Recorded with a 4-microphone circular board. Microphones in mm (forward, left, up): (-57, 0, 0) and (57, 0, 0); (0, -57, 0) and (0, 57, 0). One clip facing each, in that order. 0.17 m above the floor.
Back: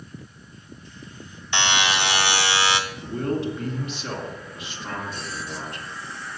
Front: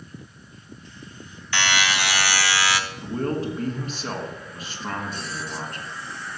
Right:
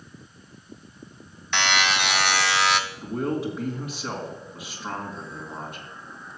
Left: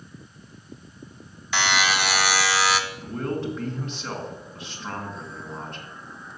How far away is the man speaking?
About 1.8 m.